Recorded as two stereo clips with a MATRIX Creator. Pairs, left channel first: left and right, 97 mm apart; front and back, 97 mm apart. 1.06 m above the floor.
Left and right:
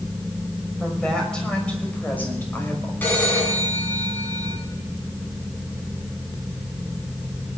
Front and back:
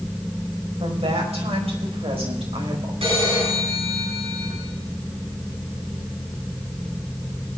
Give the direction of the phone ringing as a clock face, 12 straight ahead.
7 o'clock.